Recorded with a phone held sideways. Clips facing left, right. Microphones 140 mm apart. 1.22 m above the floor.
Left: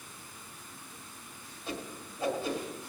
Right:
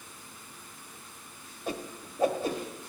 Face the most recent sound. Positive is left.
turn(degrees=-50)  # may be behind; listen again after turning